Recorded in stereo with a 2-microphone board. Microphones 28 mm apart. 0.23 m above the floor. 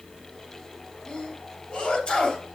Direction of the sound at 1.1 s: 30° left (ahead or behind).